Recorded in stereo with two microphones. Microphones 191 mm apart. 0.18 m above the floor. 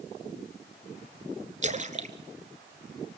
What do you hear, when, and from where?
1.6 s a splash: 40° right (ahead or behind), 1.3 m